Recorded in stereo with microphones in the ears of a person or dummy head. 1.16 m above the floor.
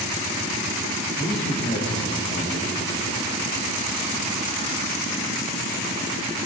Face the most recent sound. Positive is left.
turn(degrees=30)  # may be behind; listen again after turning